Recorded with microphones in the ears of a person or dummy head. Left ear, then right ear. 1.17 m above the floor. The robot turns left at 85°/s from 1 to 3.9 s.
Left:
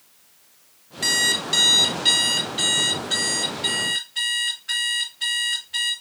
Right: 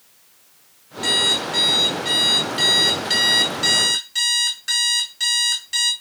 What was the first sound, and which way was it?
An alarm clock, 125° left.